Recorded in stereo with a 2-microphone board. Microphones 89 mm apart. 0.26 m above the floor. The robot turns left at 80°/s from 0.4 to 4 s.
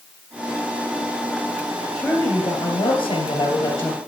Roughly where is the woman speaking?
Behind.